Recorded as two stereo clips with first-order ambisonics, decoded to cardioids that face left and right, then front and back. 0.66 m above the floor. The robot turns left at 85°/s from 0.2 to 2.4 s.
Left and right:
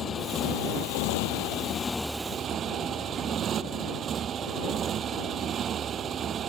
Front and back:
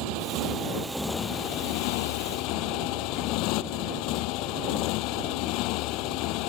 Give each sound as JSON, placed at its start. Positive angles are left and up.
{"t": 0.0, "sound": "a motorcycle", "azimuth_deg": 160}